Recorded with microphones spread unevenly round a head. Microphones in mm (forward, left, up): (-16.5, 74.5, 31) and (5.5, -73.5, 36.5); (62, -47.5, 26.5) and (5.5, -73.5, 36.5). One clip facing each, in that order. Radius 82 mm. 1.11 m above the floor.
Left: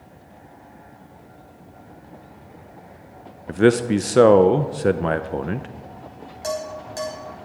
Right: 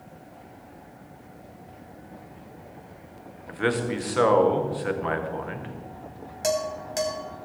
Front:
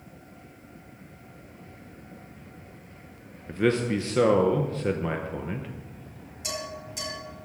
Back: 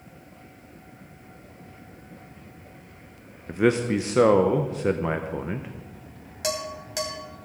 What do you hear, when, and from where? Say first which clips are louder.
3.5 s a man speaking: left 10 dB, back 3 dB; 125° left, 0.6 m
6.4 s dishes clattering: right 2 dB, back 5 dB; 150° right, 4.5 m